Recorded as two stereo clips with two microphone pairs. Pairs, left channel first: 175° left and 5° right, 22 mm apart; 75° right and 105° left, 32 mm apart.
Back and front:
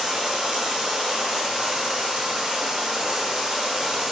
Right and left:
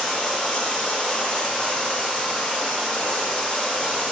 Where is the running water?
20° right, 0.8 m.